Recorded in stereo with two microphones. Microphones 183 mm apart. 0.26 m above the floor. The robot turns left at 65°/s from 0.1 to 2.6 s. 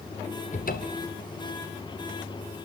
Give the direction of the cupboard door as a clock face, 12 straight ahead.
7 o'clock.